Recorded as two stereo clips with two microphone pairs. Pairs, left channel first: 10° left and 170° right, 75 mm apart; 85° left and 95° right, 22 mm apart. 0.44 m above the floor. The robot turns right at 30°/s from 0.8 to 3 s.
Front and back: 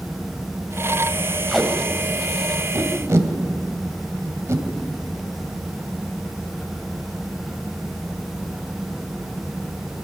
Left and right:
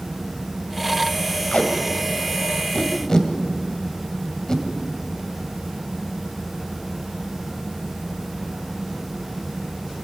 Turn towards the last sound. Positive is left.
turn(degrees=140)